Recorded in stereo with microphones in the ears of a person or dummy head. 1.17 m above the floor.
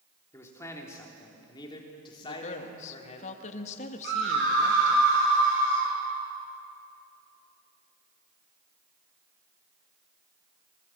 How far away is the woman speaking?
About 2.0 m.